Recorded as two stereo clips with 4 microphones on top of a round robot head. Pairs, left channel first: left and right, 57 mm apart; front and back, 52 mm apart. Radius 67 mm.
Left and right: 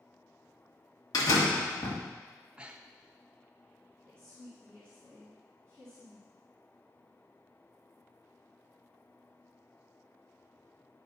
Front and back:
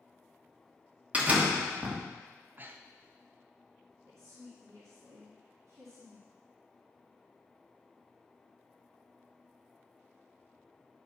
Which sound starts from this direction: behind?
A woman speaking, at 4.1 s.